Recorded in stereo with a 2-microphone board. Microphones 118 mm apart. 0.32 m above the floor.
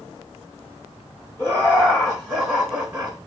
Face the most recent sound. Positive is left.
turn(degrees=-10)  # may be behind; listen again after turning